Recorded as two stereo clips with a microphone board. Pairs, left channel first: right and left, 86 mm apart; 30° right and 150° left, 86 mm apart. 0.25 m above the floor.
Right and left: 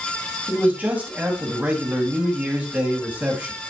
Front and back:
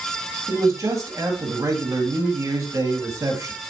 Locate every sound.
0.5 s a man speaking: 145° left, 1.9 m